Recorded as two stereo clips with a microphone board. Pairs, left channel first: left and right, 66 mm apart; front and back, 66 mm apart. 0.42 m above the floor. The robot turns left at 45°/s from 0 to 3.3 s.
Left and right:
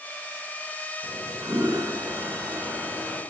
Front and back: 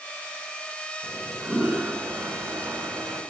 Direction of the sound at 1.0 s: 85° right.